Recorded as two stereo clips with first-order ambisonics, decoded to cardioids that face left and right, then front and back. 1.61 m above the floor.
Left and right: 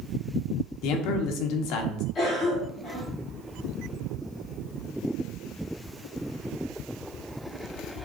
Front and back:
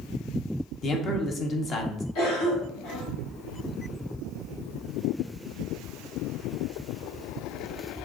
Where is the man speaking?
65° left, 1.1 m.